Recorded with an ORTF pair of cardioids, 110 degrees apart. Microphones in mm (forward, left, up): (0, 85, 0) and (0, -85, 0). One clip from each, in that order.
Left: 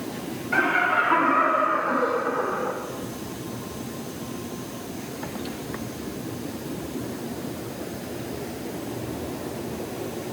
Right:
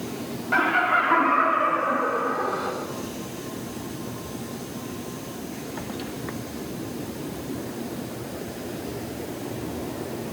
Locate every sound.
0.5 s laughter: 50° right, 3 m; by 2.7 s 30° right, 4 m